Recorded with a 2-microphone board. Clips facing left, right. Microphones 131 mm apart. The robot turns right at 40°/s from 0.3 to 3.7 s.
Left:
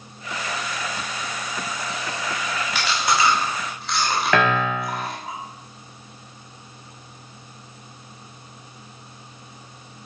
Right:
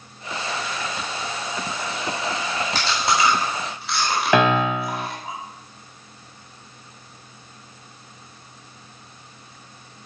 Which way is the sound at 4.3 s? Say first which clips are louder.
Right 3 dB; 20° right (ahead or behind).